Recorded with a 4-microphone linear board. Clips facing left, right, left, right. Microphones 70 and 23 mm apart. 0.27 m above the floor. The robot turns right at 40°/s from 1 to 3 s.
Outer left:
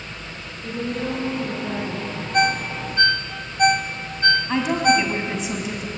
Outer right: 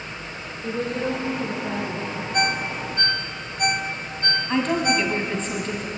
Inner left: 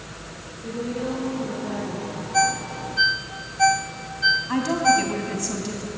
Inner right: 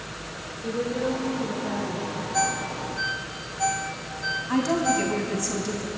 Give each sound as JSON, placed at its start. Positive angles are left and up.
{"t": 0.6, "sound": "a woman speaking", "azimuth_deg": -25, "distance_m": 10.0}
{"t": 2.3, "sound": "a ringtone", "side_deg": 30, "distance_m": 0.8}
{"t": 4.5, "sound": "a woman speaking", "side_deg": 10, "distance_m": 2.5}